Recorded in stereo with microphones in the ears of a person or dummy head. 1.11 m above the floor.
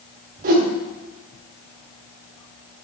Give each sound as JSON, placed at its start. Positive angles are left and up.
{"t": 0.4, "sound": "a whoosh", "side_deg": -50, "distance_m": 1.5}